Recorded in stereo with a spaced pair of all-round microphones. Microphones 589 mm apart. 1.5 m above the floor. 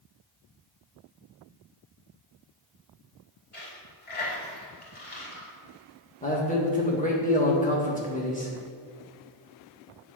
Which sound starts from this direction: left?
A dropped coin, at 3.5 s.